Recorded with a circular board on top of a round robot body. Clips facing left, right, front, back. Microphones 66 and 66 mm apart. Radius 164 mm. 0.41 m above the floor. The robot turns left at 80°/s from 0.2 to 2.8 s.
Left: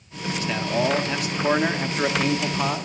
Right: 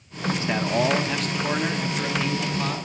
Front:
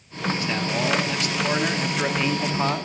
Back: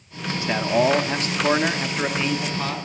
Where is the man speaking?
125° right, 1.0 m; by 2.9 s 40° left, 1.0 m.